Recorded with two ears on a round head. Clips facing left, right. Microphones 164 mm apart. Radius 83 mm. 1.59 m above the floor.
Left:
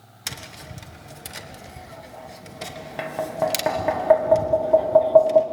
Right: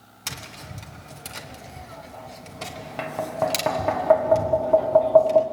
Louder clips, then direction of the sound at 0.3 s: Even; 5° left (ahead or behind).